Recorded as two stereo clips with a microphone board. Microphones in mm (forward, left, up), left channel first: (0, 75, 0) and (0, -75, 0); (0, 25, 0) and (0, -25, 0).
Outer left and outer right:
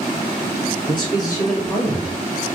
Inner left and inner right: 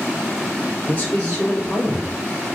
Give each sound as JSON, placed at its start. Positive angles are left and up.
{"t": 0.9, "sound": "a man speaking", "side_deg": 35, "distance_m": 1.8}